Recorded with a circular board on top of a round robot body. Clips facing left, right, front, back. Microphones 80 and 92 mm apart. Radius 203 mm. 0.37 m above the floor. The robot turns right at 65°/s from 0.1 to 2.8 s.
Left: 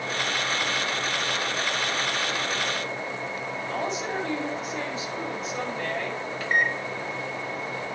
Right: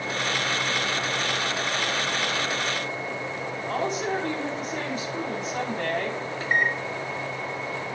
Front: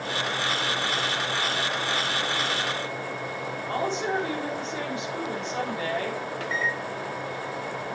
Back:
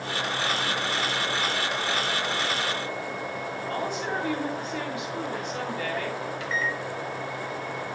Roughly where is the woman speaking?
Ahead right.